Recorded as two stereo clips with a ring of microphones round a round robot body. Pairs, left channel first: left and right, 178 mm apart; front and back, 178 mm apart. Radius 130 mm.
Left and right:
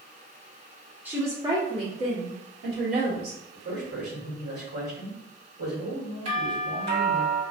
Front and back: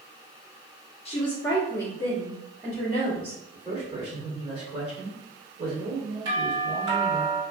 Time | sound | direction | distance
1.1 | a woman speaking | 15° right | 1.0 m
3.5 | a man speaking | 110° right | 1.8 m
6.2 | a doorbell | 120° right | 1.9 m